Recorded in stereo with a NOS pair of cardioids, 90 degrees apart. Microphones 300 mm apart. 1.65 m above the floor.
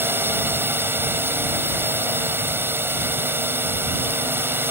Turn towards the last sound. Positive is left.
turn(degrees=-5)